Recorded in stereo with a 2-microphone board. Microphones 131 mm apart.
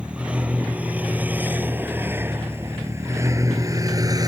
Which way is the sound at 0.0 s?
10° right (ahead or behind).